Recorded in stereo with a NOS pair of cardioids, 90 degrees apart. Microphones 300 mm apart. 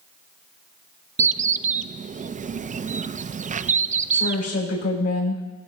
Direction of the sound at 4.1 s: 55° left.